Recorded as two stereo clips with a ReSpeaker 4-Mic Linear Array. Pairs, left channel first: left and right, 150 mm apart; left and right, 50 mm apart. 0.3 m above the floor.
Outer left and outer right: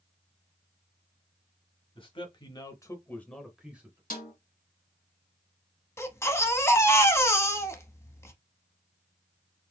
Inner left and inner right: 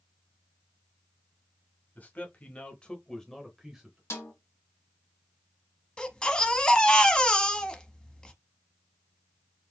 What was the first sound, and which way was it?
A man speaking, 35° left (ahead or behind).